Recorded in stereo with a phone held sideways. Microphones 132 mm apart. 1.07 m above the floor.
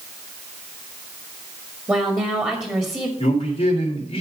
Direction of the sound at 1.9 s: 20° right (ahead or behind).